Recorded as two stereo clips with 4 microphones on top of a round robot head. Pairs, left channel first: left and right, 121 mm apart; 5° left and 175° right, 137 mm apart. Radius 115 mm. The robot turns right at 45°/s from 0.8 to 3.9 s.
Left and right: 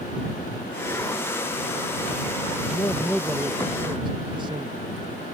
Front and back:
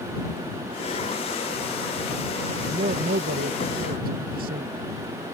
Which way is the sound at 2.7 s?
155° left.